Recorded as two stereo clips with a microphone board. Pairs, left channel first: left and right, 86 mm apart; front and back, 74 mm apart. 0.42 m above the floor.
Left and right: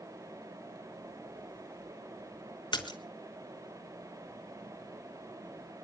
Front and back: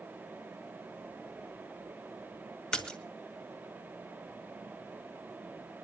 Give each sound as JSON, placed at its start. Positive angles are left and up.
{"t": 2.7, "sound": "a splash", "azimuth_deg": 75, "distance_m": 1.8}